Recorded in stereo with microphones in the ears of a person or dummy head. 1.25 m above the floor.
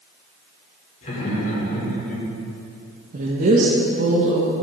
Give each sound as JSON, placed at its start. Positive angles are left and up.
{"t": 1.0, "sound": "laughter", "side_deg": 40, "distance_m": 4.0}
{"t": 3.1, "sound": "a woman speaking", "side_deg": -50, "distance_m": 1.5}